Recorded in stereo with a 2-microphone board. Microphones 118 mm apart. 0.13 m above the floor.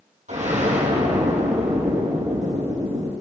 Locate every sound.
0.3 s an explosion: 75° right (ahead or behind), 4.5 m